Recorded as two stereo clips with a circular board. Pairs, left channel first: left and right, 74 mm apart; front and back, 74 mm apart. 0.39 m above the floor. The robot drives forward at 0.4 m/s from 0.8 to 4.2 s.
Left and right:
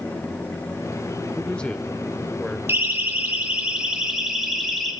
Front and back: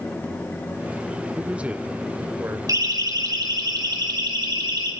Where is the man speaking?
130° left, 1.1 m; by 2.6 s 160° left, 1.3 m.